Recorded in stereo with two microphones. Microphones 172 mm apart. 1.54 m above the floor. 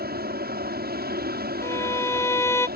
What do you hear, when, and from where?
0.0 s an aircraft: 65° right (ahead or behind)
1.6 s a violin: 15° left (ahead or behind)